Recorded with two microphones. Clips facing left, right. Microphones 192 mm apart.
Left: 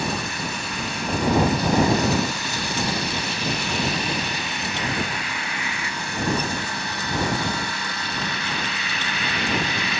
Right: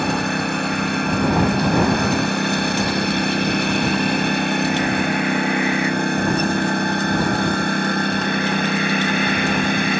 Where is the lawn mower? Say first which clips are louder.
Right 7 dB; 60° right (ahead or behind); by 10.0 s 50° right (ahead or behind).